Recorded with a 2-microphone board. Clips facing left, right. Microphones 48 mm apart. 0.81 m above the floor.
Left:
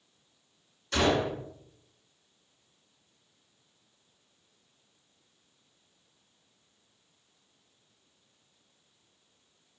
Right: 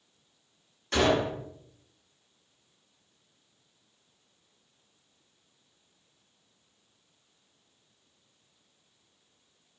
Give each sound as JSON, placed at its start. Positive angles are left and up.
{"t": 0.9, "sound": "a gunshot", "side_deg": -50, "distance_m": 2.0}